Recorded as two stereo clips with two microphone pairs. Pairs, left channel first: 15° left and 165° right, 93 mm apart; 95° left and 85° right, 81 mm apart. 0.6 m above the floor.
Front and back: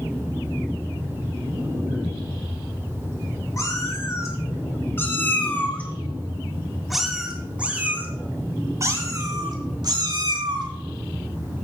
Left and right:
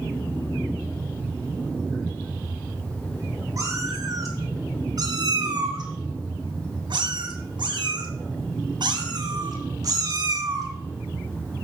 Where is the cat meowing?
35° right, 3.5 m; by 10.7 s 135° right, 3 m.